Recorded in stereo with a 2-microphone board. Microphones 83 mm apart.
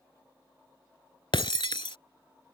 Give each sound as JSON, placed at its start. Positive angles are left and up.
{"t": 1.3, "sound": "breaking glass", "side_deg": 85}